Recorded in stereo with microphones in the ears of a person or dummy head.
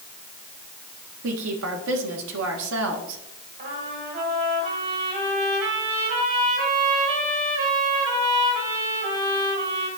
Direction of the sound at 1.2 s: 75° right (ahead or behind).